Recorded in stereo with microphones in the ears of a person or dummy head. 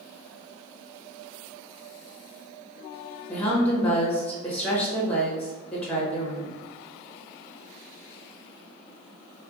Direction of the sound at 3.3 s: 5° left (ahead or behind).